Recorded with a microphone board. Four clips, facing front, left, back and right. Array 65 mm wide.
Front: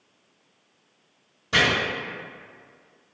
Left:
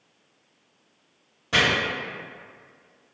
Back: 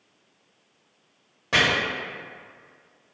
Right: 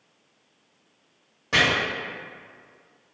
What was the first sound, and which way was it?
Chopping, 165° right.